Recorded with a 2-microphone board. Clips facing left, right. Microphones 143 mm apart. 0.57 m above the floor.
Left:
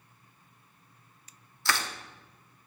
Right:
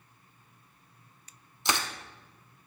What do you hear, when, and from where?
1.6 s crushing: 20° right (ahead or behind), 0.9 m